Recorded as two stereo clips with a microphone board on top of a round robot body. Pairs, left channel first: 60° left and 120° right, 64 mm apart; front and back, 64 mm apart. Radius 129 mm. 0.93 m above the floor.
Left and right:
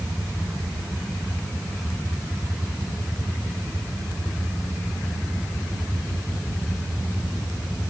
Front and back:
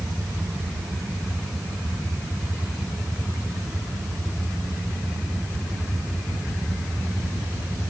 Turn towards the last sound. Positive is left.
No sound to turn to.